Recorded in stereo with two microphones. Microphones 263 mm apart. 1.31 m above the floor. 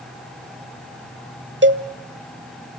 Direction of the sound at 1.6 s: 45° right (ahead or behind).